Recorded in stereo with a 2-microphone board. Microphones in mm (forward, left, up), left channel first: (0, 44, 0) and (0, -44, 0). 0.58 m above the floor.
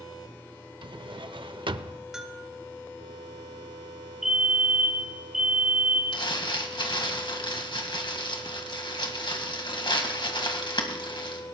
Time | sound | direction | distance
0.8 | a drawer | 70° right (ahead or behind) | 0.5 m
2.1 | a bell | 10° right (ahead or behind) | 2 m
4.2 | a fire alarm | 5° right (ahead or behind) | 3 m
6.1 | crumpling | 65° left (ahead or behind) | 2.0 m